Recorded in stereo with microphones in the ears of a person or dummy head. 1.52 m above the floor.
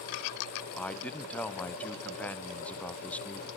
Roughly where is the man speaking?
Centre.